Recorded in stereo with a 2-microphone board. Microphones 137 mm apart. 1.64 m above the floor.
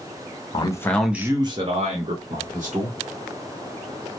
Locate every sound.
0.5 s a man speaking: 35° left (ahead or behind), 0.6 m; by 3.0 s 70° right (ahead or behind), 1.5 m